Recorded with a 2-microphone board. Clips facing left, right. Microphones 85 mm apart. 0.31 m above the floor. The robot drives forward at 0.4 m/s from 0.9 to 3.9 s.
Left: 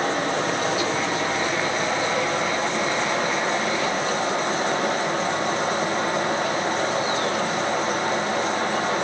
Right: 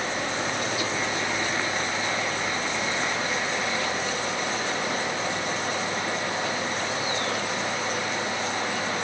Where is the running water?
55° left (ahead or behind), 6.5 m; by 9.1 s 50° left (ahead or behind), 7 m.